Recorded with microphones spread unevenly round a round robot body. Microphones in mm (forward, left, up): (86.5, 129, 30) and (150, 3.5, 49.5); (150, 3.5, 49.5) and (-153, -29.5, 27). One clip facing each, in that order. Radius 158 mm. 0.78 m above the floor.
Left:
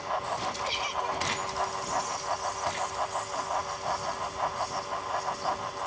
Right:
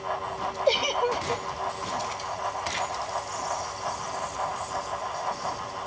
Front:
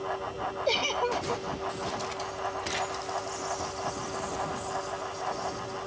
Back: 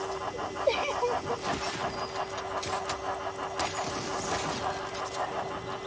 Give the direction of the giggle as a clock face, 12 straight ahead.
2 o'clock.